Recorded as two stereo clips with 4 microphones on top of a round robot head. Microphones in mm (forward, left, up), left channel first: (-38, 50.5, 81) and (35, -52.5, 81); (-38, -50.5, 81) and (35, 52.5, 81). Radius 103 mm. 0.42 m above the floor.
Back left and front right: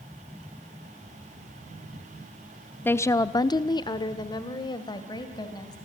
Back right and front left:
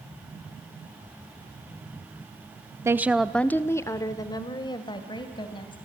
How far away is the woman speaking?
About 0.8 m.